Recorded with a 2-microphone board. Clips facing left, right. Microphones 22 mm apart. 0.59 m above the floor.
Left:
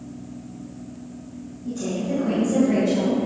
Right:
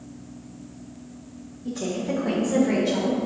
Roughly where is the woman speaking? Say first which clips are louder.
Left 1 dB; right.